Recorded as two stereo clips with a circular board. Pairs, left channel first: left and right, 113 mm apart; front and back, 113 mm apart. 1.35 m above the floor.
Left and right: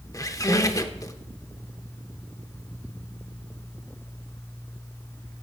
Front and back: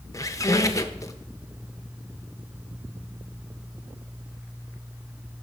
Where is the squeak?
45° left, 0.6 m.